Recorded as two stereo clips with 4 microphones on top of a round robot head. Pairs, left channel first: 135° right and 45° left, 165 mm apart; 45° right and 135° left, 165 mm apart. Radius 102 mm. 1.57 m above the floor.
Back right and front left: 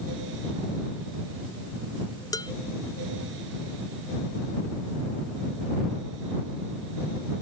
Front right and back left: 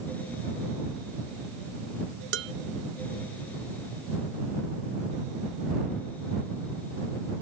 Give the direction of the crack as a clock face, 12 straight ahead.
No crack in this recording.